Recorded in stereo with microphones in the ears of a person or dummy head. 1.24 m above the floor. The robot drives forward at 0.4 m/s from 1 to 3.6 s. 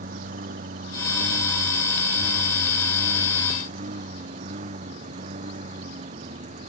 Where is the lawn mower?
45° right (ahead or behind); by 6.7 s 35° right (ahead or behind).